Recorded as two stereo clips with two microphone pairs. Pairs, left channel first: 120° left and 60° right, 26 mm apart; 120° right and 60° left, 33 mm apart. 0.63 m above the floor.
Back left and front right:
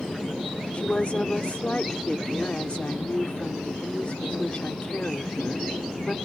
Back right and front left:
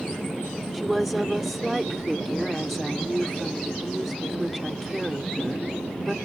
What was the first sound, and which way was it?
A woman speaking, 145° left.